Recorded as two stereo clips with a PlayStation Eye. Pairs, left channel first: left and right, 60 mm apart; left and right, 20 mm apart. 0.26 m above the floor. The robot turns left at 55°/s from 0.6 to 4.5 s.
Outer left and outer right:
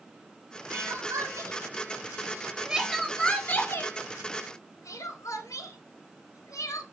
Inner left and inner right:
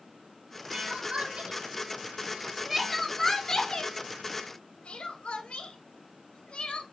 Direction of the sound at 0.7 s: 60° right (ahead or behind).